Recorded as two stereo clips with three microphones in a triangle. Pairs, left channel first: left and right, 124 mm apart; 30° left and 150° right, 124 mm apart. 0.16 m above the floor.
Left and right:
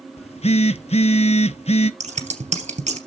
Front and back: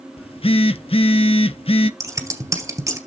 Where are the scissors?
90° right, 2.5 m.